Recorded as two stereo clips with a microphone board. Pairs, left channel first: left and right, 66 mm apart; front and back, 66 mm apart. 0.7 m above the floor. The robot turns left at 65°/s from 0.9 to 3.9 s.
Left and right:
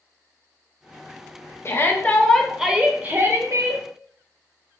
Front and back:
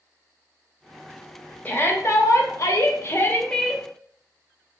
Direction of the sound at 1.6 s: 55° left.